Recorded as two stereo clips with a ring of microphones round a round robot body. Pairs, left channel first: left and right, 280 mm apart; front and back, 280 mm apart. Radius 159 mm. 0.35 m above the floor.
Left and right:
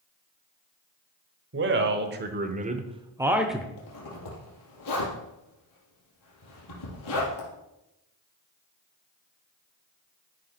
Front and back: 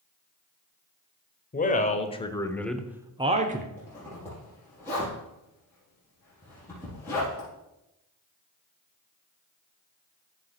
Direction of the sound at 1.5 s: 55° right.